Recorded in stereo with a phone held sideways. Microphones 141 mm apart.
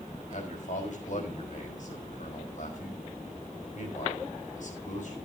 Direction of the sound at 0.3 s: 65° left (ahead or behind).